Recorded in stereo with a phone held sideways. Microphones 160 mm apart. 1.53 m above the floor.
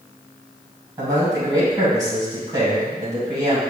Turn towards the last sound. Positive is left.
turn(degrees=-25)  # may be behind; listen again after turning